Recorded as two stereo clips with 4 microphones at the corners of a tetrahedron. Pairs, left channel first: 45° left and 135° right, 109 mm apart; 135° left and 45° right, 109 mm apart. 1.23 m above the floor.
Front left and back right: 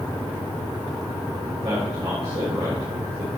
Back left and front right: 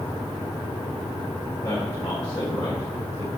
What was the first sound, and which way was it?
A man speaking, 175° right.